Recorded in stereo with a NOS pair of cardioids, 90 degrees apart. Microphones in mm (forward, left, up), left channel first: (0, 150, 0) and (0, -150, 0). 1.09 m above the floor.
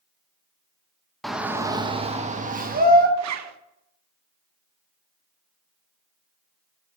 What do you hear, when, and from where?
1.2 s a shout: straight ahead, 0.8 m; by 3.1 s 35° right, 1.5 m
3.2 s a zipper: 60° right, 0.8 m